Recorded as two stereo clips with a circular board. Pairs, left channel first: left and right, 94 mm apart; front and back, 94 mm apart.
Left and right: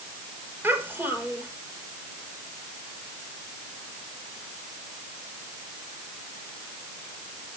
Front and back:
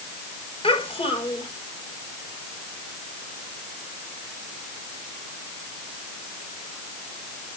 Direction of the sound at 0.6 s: 20° right.